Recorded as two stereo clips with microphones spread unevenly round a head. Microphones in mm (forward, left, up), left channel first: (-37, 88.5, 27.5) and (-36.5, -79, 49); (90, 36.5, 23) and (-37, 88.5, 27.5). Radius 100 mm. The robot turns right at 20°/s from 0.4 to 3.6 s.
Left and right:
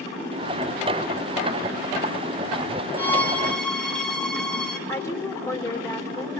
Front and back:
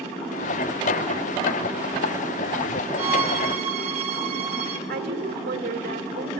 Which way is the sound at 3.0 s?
170° left.